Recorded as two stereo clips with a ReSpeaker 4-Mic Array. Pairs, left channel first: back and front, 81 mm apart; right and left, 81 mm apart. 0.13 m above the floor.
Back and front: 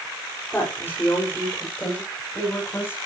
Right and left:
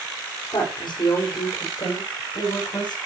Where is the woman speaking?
115° right, 6 m.